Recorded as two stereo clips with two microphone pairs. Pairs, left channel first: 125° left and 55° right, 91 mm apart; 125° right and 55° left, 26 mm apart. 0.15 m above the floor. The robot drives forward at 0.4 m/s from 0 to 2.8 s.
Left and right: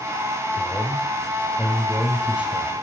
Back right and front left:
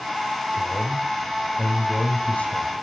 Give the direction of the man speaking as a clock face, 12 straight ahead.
5 o'clock.